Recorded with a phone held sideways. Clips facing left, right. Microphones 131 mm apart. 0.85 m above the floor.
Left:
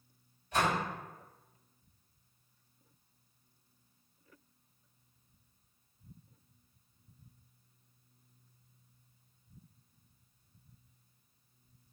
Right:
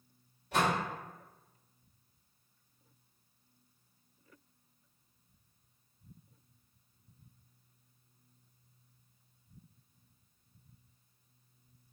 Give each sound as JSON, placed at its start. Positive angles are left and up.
{"t": 0.5, "sound": "a door slam", "side_deg": -70, "distance_m": 1.5}